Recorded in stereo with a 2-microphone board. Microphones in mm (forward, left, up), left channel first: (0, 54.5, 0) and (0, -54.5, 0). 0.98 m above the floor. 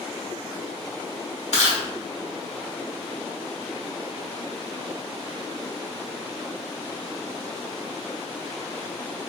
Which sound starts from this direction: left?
Chewing, at 1.5 s.